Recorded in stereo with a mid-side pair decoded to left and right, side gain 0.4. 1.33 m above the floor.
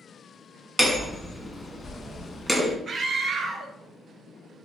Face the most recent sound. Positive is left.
turn(degrees=-50)